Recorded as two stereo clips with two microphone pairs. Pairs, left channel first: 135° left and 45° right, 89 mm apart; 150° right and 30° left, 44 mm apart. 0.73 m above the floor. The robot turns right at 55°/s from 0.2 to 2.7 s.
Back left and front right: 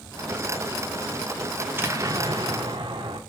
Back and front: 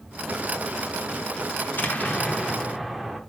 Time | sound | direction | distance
1.6 | an explosion | 120° right | 0.9 m